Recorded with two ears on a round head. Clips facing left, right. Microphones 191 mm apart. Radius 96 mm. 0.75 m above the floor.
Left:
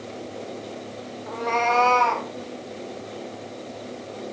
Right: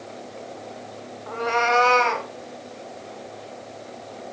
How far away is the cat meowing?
About 2 m.